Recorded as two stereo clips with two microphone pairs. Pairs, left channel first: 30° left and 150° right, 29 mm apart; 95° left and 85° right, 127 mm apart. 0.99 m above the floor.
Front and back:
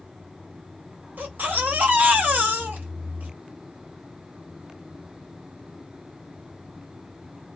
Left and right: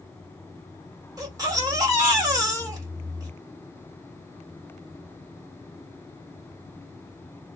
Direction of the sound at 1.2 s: 150° right.